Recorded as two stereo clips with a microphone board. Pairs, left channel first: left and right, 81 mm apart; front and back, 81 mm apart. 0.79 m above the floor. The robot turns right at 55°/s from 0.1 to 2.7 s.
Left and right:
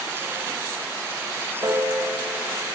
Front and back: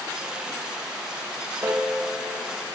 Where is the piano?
130° right, 1.5 m; by 2.4 s 85° right, 1.5 m.